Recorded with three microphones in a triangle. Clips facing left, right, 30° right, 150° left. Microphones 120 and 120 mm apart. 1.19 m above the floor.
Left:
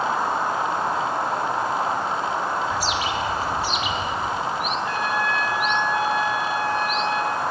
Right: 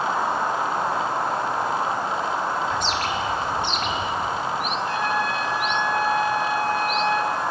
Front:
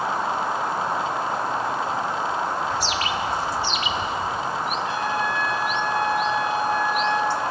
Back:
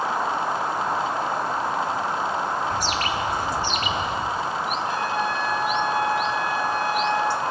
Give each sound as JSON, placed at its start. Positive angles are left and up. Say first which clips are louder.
{"t": 2.7, "sound": "a bird", "louder": "even, even", "azimuth_deg": 170, "distance_m": 0.9}
{"t": 4.8, "sound": "a trumpet", "louder": "right 1 dB, even", "azimuth_deg": -35, "distance_m": 6.5}